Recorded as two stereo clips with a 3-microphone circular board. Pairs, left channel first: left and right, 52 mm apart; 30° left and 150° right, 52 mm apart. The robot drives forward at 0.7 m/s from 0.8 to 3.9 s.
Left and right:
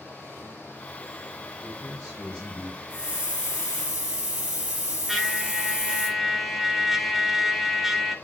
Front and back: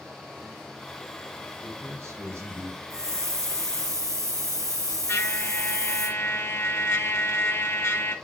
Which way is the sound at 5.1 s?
5° right.